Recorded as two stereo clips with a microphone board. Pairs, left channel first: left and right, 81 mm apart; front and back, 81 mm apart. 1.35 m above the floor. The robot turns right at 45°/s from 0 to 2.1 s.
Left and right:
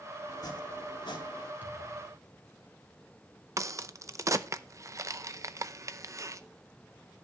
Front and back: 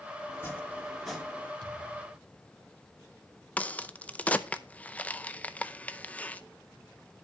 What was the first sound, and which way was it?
Chopping, 50° left.